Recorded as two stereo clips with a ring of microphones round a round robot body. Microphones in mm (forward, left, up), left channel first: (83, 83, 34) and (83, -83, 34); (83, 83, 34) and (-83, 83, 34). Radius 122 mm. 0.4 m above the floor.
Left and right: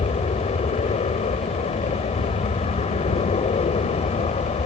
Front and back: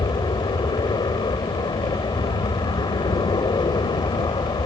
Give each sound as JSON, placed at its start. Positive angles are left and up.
{"t": 0.0, "sound": "an aircraft", "azimuth_deg": 55}